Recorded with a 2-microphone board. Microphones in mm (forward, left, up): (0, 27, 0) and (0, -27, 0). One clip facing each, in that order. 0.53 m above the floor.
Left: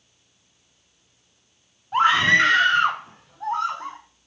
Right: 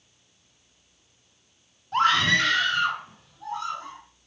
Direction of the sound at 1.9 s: 10° left (ahead or behind).